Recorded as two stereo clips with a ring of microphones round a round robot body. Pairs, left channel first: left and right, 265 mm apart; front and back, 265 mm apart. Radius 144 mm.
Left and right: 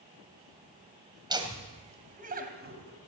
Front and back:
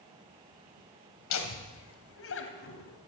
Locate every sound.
1.3 s laughter: 15° right, 2.5 m; by 3.0 s 45° right, 3 m